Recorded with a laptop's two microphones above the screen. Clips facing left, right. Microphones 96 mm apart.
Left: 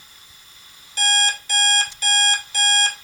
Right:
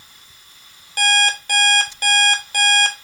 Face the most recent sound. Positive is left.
turn(degrees=-55)  # may be behind; listen again after turning